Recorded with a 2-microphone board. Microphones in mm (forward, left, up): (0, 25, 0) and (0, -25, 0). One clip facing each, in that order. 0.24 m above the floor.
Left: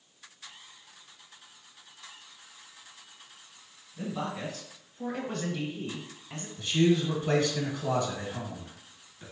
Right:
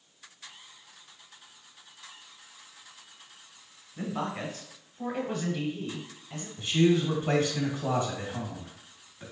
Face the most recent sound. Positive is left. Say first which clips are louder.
# right 1 dB
turn(degrees=-25)  # may be behind; listen again after turning